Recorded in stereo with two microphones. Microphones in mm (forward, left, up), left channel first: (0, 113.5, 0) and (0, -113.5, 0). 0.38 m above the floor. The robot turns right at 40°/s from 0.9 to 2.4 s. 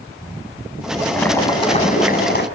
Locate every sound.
1.1 s boiling: 5° left, 3 m; by 2.5 s 55° left, 3 m